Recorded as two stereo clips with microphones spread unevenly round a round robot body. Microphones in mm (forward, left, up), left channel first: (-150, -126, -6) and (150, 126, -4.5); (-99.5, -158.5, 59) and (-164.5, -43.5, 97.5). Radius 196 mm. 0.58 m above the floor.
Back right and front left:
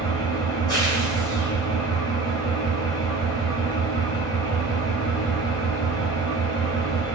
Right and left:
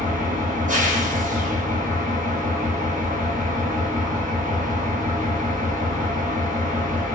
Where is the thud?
No thud in this recording.